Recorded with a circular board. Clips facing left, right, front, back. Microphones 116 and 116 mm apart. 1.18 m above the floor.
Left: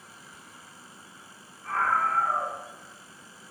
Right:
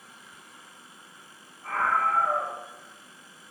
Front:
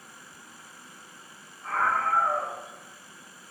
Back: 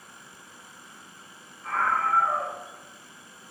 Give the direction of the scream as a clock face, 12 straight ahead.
2 o'clock.